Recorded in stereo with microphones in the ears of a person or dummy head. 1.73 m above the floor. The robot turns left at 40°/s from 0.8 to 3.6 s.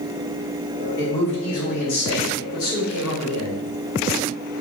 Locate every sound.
1.0 s a man speaking: 155° left, 1.3 m; by 3.6 s 50° left, 1.3 m